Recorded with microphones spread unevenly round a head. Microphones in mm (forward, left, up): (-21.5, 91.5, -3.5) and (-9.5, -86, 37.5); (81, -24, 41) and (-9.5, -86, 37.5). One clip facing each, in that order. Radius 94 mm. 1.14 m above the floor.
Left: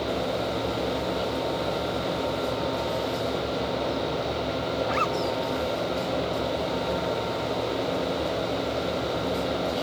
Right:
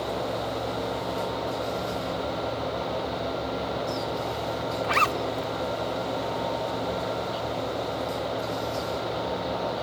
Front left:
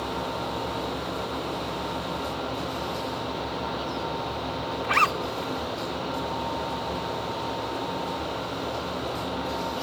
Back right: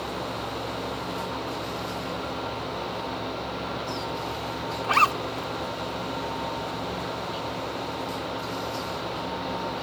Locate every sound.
4.8 s a zipper: 85° right